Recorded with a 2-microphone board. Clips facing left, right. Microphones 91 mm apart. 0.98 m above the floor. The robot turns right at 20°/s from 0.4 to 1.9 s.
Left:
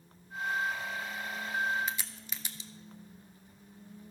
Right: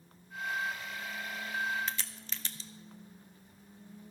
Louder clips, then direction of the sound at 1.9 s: Left 2 dB; 10° left (ahead or behind).